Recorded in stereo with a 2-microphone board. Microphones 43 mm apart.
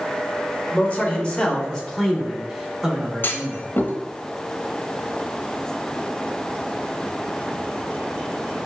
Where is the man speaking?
30° left (ahead or behind), 1.9 m; by 3.6 s 25° right (ahead or behind), 1.8 m.